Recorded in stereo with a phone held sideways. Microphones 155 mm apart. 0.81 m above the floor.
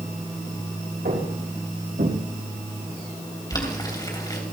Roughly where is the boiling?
Left.